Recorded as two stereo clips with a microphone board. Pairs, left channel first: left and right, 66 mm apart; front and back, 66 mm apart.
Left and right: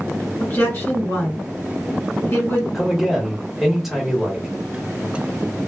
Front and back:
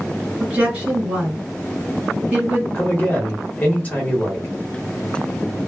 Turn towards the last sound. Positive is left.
turn(degrees=-10)